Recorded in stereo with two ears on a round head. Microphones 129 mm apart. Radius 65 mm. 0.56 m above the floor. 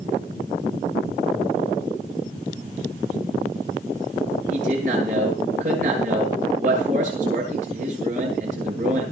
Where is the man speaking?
65° right (ahead or behind), 10 m.